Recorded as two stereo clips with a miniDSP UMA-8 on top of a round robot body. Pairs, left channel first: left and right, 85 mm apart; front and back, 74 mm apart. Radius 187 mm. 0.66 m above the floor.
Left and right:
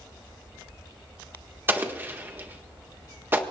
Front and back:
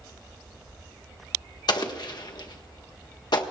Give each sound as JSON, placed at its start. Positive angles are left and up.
{"t": 1.7, "sound": "an explosion", "azimuth_deg": -25, "distance_m": 1.5}